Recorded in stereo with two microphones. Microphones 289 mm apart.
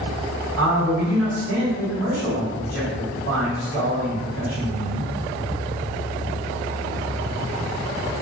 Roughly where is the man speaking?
Left.